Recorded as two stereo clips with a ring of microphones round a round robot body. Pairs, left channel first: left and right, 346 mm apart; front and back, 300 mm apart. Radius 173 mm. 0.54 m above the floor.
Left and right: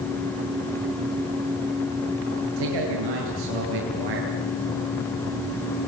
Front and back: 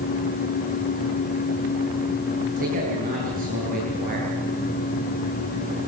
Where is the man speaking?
110° right, 10 m.